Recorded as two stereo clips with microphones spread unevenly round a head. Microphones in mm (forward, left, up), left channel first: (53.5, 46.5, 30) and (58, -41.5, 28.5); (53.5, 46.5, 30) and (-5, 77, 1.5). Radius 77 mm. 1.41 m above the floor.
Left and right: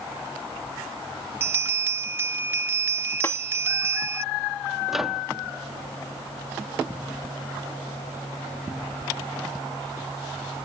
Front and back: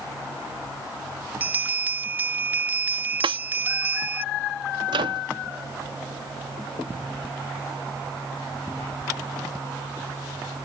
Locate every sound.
1.4 s a bell: 105° right
3.2 s a snare drum: 165° left
4.9 s a microwave: 175° right